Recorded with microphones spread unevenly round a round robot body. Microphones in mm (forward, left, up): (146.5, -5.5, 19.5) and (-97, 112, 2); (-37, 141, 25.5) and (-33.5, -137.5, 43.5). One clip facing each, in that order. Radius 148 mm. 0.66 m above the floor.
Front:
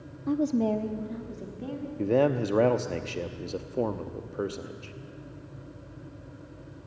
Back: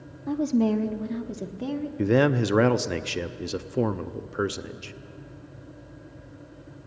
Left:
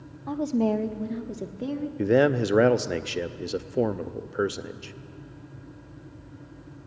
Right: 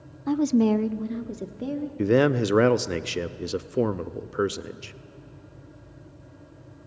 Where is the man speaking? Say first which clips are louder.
Back 3 dB, right 1 dB; 165° right, 0.6 m.